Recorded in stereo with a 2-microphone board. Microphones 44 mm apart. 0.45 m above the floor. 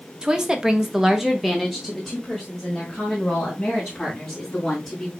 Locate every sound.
0.2 s a woman speaking: 20° right (ahead or behind), 1.0 m; by 5.1 s 10° left (ahead or behind), 4 m